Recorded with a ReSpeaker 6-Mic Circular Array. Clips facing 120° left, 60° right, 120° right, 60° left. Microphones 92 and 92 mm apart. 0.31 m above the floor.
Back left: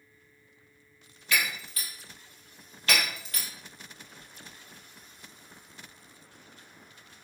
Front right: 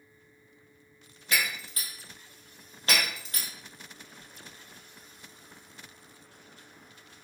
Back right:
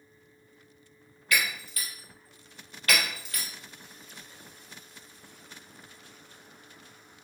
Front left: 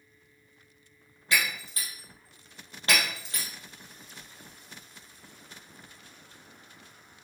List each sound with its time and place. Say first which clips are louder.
1.3 s breaking glass: back left 1 dB, even; 5° right, 2 m